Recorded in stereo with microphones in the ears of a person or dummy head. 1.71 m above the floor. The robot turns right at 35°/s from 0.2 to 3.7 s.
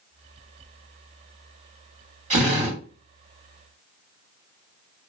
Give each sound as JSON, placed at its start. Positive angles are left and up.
{"t": 2.3, "sound": "a drill", "side_deg": -30, "distance_m": 1.4}